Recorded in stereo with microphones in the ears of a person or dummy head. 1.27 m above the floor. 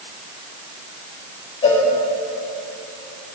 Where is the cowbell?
25° left (ahead or behind), 2.0 m.